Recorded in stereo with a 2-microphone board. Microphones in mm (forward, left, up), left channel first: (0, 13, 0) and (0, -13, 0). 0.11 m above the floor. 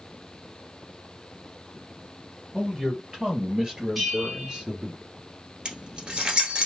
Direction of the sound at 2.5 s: 15° right (ahead or behind).